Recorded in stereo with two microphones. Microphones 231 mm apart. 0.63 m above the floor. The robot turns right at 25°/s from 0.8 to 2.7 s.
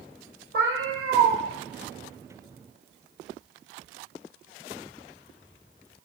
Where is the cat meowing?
60° right (ahead or behind), 0.7 m; by 1.4 s 70° right (ahead or behind), 0.7 m.